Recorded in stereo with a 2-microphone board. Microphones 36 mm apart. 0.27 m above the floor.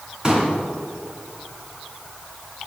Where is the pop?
25° right (ahead or behind), 3 m.